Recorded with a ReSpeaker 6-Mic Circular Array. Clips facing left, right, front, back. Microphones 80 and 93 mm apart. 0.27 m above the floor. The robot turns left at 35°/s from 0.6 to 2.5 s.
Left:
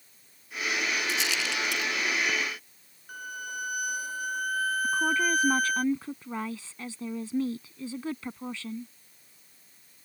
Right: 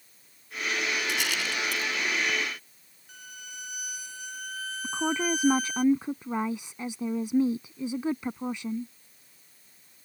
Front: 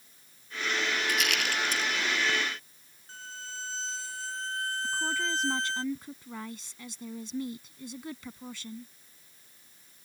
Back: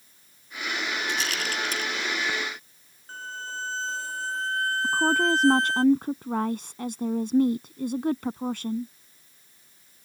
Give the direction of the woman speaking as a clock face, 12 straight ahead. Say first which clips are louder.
Even, back 11 dB; 5 o'clock.